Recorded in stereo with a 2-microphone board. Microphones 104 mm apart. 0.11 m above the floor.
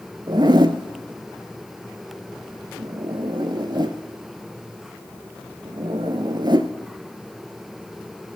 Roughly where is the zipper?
Right.